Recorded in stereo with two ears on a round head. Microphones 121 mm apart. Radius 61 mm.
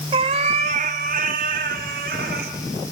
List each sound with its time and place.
0.1 s a cat meowing: 35° right (ahead or behind), 1.4 m; by 2.5 s 75° right (ahead or behind), 3.5 m